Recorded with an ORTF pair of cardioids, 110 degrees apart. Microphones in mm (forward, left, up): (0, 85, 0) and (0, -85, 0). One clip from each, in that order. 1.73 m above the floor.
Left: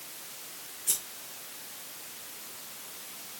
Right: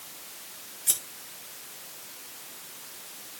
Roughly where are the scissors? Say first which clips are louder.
Right 3 dB; ahead right.